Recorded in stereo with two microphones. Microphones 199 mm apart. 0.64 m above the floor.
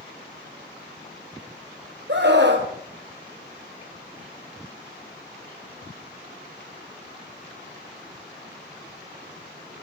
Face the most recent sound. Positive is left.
turn(degrees=-65)  # may be behind; listen again after turning